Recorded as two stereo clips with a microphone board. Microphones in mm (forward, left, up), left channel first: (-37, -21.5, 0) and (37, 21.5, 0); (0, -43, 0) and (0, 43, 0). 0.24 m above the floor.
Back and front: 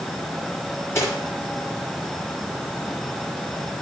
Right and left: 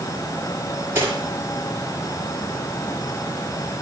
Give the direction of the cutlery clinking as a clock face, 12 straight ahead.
7 o'clock.